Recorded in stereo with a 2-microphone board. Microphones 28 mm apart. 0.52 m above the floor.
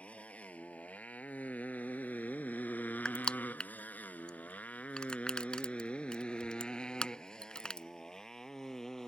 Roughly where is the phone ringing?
I don't hear a phone ringing.